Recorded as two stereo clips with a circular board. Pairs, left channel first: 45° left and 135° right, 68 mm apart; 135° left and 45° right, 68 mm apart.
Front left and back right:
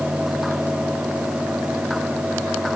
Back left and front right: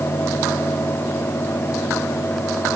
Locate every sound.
Only background noise.